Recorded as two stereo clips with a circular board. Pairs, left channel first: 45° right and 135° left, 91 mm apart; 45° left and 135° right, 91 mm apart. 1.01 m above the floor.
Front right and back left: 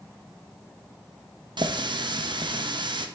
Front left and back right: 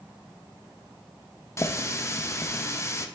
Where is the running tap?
100° left, 0.5 m.